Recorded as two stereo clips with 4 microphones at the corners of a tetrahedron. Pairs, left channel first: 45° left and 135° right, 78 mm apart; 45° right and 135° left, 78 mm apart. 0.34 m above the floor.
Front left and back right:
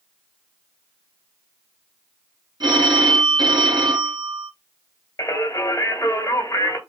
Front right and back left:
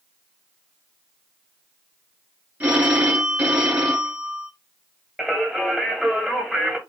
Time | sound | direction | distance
2.6 | a phone ringing | 155° right | 3 m
5.2 | singing | 60° left | 1.9 m